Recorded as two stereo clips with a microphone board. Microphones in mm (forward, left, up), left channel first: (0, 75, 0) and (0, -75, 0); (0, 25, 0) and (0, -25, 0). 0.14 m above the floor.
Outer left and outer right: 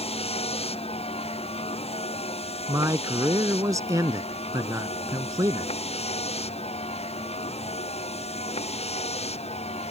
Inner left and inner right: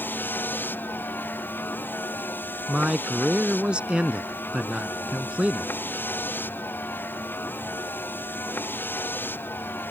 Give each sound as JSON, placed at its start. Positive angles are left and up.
{"t": 0.0, "sound": "a vehicle", "side_deg": 40}
{"t": 2.7, "sound": "a man speaking", "side_deg": -20}